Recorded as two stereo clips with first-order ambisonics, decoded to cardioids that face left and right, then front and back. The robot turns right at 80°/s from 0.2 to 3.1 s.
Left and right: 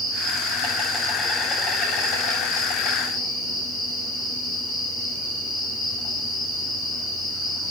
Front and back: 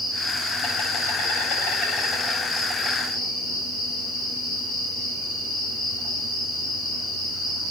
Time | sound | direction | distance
0.0 | an insect | 85° right | 9 m